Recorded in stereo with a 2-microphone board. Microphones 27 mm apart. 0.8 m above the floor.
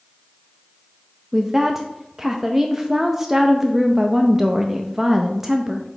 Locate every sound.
1.3 s a woman speaking: 15° right (ahead or behind), 0.6 m